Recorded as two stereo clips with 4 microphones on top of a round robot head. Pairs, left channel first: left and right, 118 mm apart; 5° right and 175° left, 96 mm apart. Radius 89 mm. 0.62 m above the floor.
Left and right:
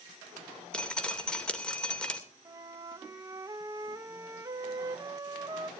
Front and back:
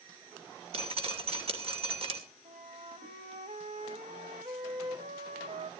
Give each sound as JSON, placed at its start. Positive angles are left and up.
{"t": 0.7, "sound": "dripping", "azimuth_deg": 170, "distance_m": 2.5}
{"t": 2.5, "sound": "a flute", "azimuth_deg": -145, "distance_m": 0.6}